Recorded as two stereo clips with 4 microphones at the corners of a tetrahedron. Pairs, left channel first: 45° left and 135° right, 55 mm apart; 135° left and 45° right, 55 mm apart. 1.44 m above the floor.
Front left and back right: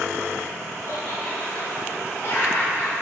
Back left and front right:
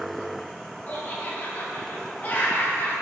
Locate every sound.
0.9 s laughter: 80° left, 3 m